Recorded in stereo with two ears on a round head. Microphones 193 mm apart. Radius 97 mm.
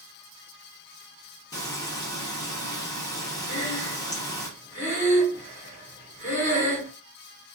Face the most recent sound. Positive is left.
turn(degrees=25)  # may be behind; listen again after turning